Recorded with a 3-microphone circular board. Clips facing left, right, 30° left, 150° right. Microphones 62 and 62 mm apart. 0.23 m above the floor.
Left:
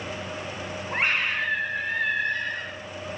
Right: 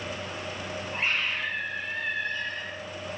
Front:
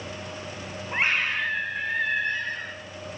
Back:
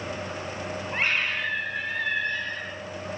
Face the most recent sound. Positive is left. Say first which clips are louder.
# left 4 dB, front 2 dB
turn(degrees=100)